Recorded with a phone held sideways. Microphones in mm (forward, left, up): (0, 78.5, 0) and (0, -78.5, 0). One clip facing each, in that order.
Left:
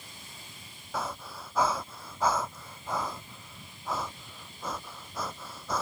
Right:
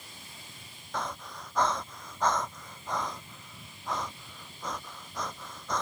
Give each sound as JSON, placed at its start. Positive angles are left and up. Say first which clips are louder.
{"t": 0.9, "sound": "breathing", "louder": "left 1 dB", "side_deg": 5}